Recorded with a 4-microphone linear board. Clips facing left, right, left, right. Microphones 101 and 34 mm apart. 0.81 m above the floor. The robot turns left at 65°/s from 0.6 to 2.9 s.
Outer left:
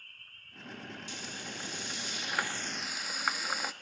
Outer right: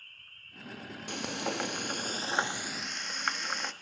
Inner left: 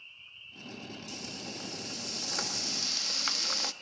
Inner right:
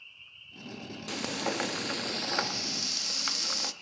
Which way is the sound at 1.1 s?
65° right.